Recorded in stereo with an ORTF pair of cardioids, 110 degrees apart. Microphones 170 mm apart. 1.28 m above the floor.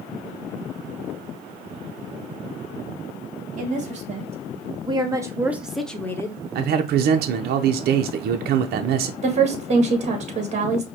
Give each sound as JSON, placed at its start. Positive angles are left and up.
{"t": 3.6, "sound": "a woman speaking", "azimuth_deg": -50, "distance_m": 1.9}
{"t": 6.5, "sound": "a man speaking", "azimuth_deg": -70, "distance_m": 0.6}
{"t": 9.2, "sound": "a woman speaking", "azimuth_deg": -40, "distance_m": 1.7}